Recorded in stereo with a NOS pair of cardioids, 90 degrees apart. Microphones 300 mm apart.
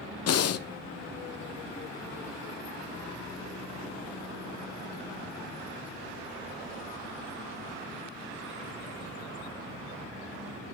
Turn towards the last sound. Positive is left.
turn(degrees=55)